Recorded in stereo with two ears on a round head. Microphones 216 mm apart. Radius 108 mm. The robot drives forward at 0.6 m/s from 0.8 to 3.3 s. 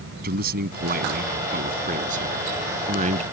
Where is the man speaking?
40° right (ahead or behind); by 3.2 s 30° right (ahead or behind).